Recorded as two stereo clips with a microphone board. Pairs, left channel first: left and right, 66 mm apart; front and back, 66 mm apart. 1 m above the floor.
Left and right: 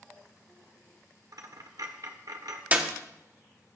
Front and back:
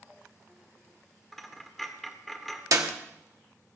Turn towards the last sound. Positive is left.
turn(degrees=-155)